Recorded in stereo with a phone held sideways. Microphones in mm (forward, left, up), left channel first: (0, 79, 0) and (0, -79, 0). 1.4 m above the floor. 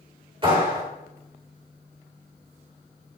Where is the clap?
30° right (ahead or behind), 3.5 m.